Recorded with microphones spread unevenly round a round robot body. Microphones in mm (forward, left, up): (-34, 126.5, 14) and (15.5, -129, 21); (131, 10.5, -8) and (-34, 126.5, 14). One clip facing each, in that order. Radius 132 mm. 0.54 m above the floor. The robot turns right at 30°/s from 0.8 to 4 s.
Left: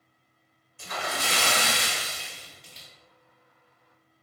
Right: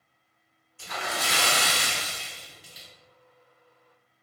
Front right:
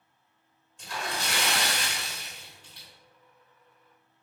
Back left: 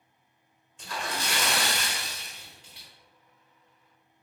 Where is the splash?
135° left, 1.2 m; by 2.9 s 160° right, 1.2 m.